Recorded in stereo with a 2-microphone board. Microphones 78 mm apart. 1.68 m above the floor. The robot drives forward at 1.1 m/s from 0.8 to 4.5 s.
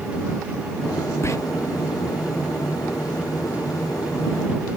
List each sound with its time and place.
1.2 s whispering: 40° left (ahead or behind); by 1.4 s 45° left (ahead or behind)